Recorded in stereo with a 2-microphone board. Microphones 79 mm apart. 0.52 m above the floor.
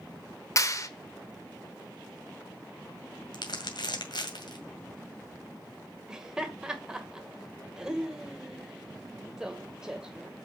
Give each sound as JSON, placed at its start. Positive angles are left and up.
{"t": 0.6, "sound": "a clap", "side_deg": 40, "distance_m": 1.0}
{"t": 3.3, "sound": "crumpling", "side_deg": 65, "distance_m": 2.0}
{"t": 6.1, "sound": "laughter", "side_deg": -10, "distance_m": 1.9}